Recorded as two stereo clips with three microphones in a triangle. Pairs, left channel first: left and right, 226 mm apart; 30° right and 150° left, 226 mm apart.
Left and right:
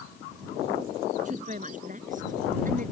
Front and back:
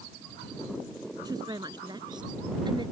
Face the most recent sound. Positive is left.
turn(degrees=-140)